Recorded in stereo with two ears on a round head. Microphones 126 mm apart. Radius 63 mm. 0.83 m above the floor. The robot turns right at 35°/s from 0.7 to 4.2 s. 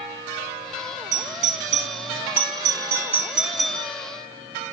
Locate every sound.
1.1 s a doorbell: 55° right (ahead or behind), 2.5 m; by 3.9 s 10° left (ahead or behind), 2.5 m